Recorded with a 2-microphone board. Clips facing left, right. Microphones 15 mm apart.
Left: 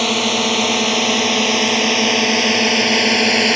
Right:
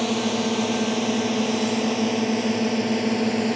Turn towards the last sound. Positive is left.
turn(degrees=60)  # may be behind; listen again after turning